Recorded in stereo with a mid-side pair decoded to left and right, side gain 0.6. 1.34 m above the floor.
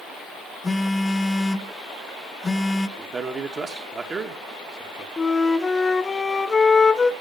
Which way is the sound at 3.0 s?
30° right.